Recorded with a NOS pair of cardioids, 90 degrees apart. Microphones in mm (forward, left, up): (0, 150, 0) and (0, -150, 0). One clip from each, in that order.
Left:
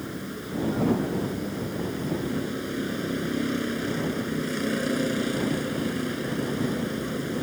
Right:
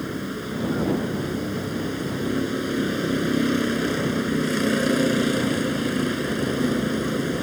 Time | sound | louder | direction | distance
0.0 | a vehicle | right 5 dB | 45° right | ?